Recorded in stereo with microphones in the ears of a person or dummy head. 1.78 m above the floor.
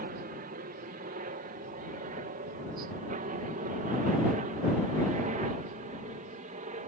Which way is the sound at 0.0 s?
40° right (ahead or behind).